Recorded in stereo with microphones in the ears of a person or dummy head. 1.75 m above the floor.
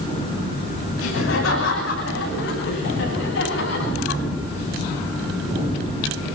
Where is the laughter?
85° left, 10 m; by 4.2 s 70° left (ahead or behind), 13.5 m.